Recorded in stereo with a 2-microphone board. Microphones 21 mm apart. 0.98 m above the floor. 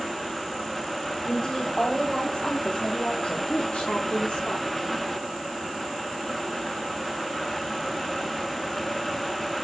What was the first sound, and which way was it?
A woman speaking, 30° left (ahead or behind).